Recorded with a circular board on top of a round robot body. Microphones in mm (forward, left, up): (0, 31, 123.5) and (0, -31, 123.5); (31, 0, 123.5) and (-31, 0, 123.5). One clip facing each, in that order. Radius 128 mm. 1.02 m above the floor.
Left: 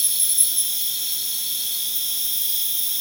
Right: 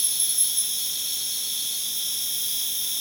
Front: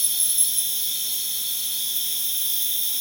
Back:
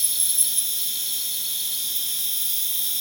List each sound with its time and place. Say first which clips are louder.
0.0 s an insect: left 1 dB, front 1 dB; 140° left, 4.5 m